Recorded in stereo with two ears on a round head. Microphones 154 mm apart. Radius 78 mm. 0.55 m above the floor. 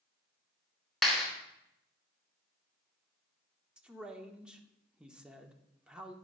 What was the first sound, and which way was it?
A clap, centre (ahead or behind).